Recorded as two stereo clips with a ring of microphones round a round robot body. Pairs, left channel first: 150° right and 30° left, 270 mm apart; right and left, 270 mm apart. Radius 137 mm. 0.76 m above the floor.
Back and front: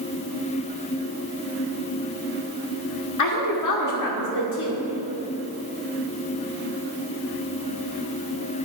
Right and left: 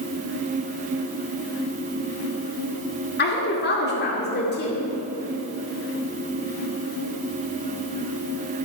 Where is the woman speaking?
145° right, 2 m.